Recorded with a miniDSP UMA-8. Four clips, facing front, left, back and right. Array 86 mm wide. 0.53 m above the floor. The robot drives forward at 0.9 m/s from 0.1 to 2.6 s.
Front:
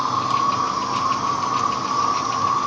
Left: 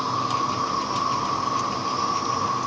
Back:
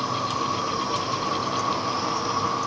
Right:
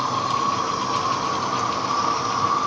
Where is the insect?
50° right, 4.5 m; by 2.7 s 80° right, 3.5 m.